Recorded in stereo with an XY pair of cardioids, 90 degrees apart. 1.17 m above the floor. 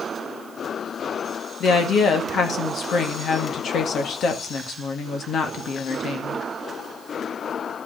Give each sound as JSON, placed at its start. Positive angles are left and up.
{"t": 1.6, "sound": "a woman speaking", "azimuth_deg": 65, "distance_m": 2.0}